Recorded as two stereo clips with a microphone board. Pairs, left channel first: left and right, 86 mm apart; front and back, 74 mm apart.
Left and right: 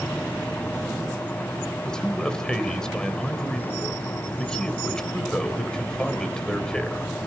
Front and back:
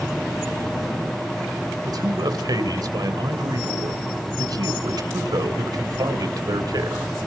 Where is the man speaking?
170° left, 2.5 m.